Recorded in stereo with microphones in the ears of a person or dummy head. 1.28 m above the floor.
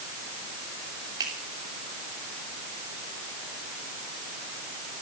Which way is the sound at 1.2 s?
25° right (ahead or behind).